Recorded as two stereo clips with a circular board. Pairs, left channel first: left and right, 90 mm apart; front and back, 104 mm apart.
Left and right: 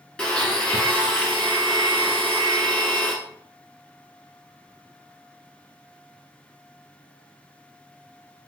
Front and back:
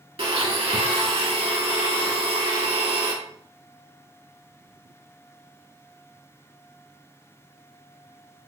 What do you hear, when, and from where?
0.2 s a blender: 170° left, 0.9 m